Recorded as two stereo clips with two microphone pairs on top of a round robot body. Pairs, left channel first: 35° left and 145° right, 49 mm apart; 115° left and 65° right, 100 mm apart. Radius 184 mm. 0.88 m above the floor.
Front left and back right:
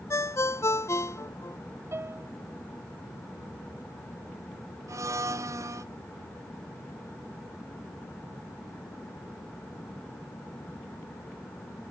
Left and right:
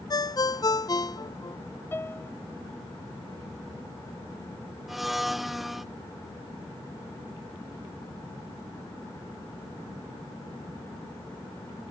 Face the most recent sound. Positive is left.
turn(degrees=-155)